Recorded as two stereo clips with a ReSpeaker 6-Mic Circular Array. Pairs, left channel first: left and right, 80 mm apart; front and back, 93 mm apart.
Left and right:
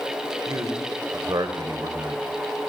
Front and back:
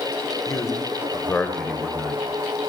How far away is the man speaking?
About 1.5 m.